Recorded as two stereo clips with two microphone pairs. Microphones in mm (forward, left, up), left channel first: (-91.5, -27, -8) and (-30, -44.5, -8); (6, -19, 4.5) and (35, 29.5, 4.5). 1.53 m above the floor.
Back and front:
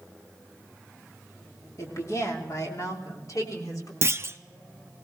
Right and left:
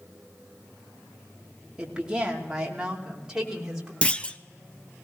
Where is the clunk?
55° right, 0.5 m.